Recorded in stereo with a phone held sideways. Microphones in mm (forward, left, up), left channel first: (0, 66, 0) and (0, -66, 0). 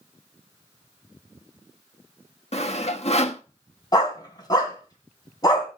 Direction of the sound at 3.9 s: 30° left (ahead or behind).